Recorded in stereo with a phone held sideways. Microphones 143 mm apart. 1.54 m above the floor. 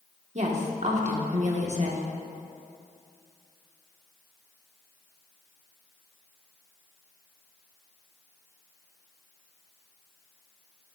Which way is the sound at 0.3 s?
50° right (ahead or behind).